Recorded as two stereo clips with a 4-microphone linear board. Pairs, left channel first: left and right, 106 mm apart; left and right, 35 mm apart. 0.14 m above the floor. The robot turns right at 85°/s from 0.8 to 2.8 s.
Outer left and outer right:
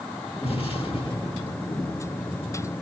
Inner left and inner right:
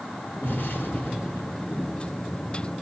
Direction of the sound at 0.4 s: 90° left.